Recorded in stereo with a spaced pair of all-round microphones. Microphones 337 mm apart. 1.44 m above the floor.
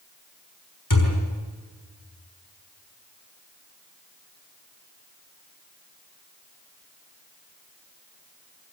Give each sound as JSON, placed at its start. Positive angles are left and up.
{"t": 0.9, "sound": "a thud", "side_deg": 80, "distance_m": 6.5}